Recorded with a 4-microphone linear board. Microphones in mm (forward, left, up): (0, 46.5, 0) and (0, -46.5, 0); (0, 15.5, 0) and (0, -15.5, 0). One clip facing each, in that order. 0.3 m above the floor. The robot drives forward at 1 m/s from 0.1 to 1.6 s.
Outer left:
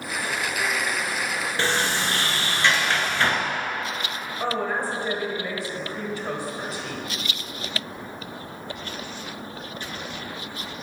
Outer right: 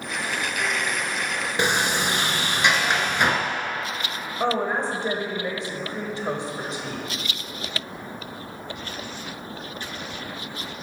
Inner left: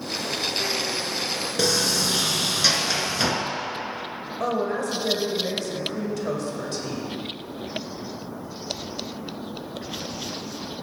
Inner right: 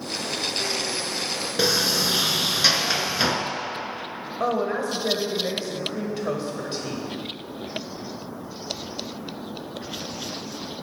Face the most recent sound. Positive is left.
turn(degrees=-25)  # may be behind; listen again after turning